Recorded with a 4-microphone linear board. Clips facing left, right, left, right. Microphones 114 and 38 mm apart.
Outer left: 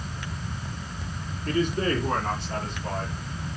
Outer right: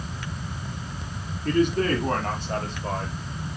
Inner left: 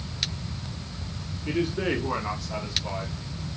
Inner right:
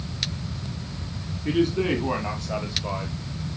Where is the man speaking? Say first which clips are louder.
Outer right 3 dB, inner right 4 dB; 55° right (ahead or behind), 5.5 m; by 3.1 s 35° right (ahead or behind), 5 m.